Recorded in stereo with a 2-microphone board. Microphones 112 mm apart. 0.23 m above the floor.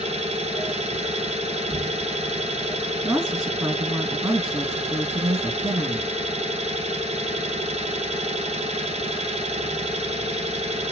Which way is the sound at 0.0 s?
80° right.